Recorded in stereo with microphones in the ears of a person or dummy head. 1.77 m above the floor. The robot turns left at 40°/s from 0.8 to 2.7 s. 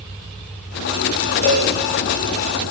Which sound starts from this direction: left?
A cowbell, at 1.4 s.